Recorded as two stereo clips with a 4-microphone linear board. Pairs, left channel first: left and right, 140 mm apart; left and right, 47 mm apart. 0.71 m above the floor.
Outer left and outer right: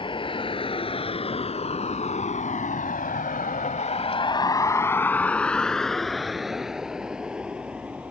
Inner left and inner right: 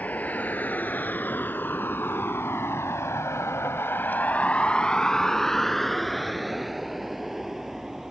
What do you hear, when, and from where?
0.0 s a vehicle: 35° left (ahead or behind); by 8.1 s 10° right (ahead or behind)